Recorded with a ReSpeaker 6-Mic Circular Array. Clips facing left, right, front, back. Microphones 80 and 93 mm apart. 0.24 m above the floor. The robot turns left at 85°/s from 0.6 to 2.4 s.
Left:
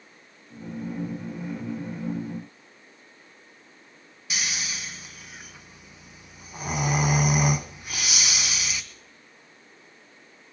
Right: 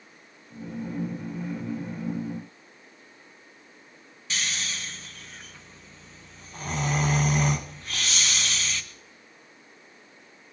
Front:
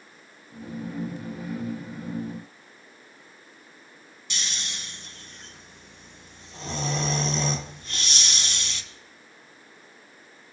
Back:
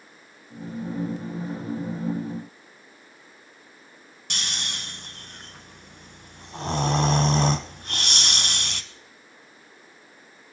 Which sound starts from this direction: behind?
Snoring, at 4.3 s.